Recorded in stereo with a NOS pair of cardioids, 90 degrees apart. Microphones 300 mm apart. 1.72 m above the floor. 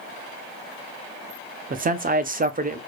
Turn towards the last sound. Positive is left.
turn(degrees=-30)